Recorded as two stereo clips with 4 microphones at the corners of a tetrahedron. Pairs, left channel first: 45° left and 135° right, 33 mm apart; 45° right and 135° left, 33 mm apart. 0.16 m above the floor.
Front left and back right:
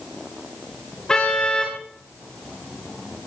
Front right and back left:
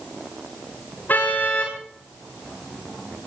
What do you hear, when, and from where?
1.1 s a car horn: 25° right, 8.5 m